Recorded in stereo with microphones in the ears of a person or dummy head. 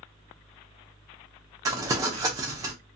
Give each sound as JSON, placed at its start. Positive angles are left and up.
{"t": 1.6, "sound": "crumpling", "side_deg": -15, "distance_m": 0.7}